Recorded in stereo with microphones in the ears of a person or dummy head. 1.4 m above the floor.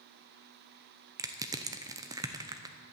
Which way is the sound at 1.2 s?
15° right (ahead or behind).